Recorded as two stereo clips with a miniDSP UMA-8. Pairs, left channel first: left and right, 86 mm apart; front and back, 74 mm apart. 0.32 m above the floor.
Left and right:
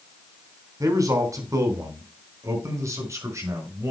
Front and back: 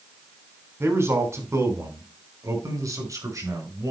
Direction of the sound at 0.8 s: 130° right.